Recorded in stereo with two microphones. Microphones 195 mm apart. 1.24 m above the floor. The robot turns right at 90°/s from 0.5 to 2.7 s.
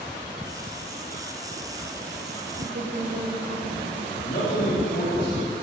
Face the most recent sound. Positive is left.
turn(degrees=65)  # may be behind; listen again after turning